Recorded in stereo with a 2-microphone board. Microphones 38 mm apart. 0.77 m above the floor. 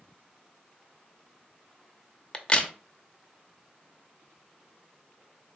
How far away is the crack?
About 0.6 m.